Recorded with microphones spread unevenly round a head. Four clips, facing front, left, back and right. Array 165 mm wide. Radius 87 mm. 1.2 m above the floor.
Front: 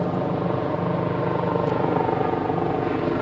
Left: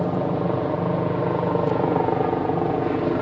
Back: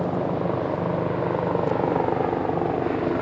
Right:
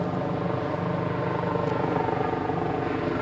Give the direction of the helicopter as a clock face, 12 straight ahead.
9 o'clock.